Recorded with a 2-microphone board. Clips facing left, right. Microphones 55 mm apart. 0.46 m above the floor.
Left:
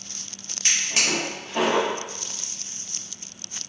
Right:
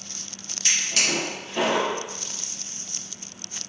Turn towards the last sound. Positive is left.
turn(degrees=30)  # may be behind; listen again after turning